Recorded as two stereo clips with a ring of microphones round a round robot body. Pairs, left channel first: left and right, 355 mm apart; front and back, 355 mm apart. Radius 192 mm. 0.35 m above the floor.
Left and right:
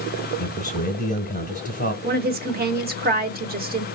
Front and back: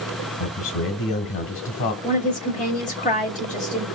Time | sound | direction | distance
0.4 | a man speaking | 25° left | 1.6 m
2.0 | a woman speaking | 50° right | 0.9 m